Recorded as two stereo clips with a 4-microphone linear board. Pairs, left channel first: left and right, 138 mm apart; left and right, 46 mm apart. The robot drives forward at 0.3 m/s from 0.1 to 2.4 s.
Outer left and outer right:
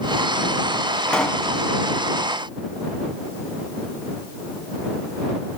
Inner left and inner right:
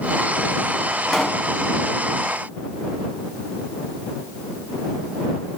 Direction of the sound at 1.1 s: 5° left (ahead or behind).